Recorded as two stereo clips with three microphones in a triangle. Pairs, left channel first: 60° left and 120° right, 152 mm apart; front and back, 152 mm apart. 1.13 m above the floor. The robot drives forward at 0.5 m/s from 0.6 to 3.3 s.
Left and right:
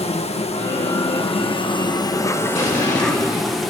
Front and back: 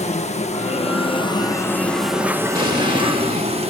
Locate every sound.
0.0 s an insect: 25° left, 1.0 m; by 3.7 s 150° left, 0.9 m
2.5 s an explosion: 125° left, 3.5 m; by 3.6 s 130° left, 3.5 m